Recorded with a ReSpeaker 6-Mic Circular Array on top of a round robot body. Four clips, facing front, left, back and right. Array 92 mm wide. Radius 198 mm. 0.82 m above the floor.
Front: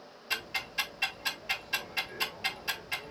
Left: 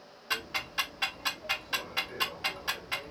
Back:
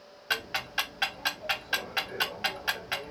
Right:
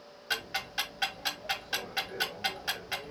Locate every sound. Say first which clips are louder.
0.3 s ticking: even, back 5 dB; 175° right, 2 m